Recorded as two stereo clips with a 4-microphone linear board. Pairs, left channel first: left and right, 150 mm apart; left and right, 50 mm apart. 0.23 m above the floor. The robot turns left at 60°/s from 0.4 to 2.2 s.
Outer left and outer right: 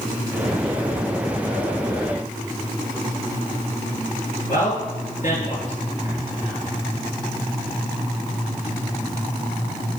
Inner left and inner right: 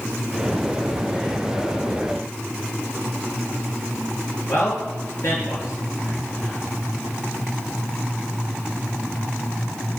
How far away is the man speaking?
About 4.5 m.